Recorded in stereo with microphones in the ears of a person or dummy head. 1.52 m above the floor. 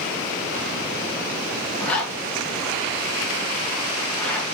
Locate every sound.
1.8 s a zipper: 5° left (ahead or behind), 1.6 m